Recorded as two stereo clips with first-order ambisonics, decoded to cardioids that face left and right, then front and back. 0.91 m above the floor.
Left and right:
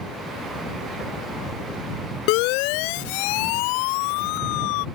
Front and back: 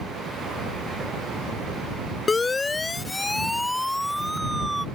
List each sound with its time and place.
2.3 s a siren: 75° left; by 4.9 s 100° left